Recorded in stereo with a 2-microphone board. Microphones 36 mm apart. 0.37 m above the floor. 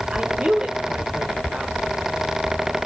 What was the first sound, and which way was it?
A woman speaking, 35° right (ahead or behind).